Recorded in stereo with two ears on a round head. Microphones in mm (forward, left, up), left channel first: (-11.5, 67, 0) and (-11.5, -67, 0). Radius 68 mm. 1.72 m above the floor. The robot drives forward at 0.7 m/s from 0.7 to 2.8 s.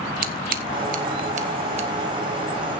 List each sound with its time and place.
0.2 s scissors: 70° right (ahead or behind), 1.5 m; by 1.9 s 50° right (ahead or behind), 1.9 m